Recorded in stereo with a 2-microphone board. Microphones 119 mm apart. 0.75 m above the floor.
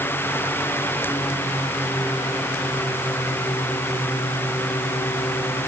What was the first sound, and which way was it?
Only background noise.